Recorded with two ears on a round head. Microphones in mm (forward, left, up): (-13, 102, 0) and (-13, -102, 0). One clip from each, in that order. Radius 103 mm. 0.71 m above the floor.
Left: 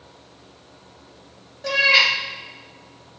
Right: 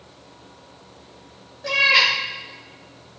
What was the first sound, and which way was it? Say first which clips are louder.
A cat meowing: even; 20° left (ahead or behind).